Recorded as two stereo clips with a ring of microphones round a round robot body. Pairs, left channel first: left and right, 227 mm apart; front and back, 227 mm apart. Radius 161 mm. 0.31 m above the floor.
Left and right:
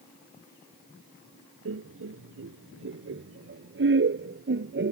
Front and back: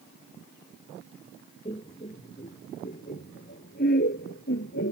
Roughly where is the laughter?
Right.